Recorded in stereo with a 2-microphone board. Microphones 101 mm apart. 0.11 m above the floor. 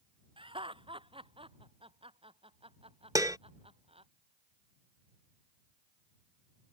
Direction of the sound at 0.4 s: 60° right (ahead or behind).